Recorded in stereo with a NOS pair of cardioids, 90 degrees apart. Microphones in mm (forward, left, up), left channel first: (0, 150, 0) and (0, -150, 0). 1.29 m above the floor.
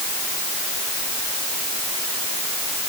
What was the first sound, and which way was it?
Only background noise.